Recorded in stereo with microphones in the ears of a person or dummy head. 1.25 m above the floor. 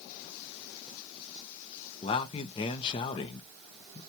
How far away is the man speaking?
About 0.6 m.